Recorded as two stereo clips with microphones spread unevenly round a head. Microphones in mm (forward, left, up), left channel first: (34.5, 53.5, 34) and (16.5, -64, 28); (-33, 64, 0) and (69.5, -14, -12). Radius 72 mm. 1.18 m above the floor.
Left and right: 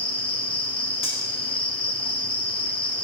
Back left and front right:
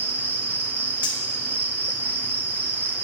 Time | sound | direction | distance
0.0 | an insect | 35° left | 1.0 m
1.0 | cutlery clinking | 130° left | 1.6 m